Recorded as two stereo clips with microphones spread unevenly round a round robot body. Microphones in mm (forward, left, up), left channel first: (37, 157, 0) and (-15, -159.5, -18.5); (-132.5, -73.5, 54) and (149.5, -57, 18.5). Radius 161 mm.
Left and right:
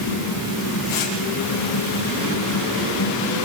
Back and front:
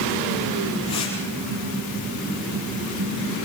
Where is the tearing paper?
110° left, 8 m.